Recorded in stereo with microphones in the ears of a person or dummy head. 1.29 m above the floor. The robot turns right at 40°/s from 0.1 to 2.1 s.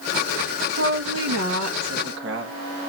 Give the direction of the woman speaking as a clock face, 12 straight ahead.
4 o'clock.